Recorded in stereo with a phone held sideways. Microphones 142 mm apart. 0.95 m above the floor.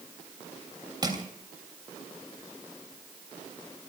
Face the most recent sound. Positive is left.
turn(degrees=-30)  # may be behind; listen again after turning